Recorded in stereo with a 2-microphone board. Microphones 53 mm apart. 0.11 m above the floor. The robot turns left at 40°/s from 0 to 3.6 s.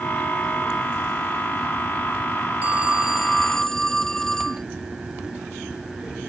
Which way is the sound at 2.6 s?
150° right.